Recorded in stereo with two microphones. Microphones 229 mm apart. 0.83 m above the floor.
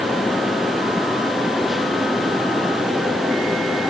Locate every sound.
Only background noise.